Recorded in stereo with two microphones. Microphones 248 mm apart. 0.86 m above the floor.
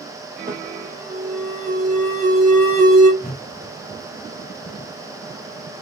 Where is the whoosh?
35° left (ahead or behind), 0.8 m.